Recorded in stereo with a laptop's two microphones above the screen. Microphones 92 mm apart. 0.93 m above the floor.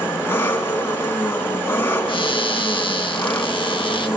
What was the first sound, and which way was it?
An engine running, 25° left (ahead or behind).